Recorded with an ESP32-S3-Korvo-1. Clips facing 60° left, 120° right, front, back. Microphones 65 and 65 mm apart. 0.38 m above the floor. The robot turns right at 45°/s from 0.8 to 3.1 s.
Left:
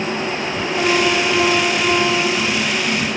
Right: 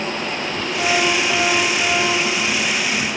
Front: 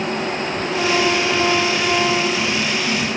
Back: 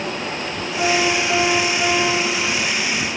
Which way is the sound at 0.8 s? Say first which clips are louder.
Left 2 dB, even; 90° left.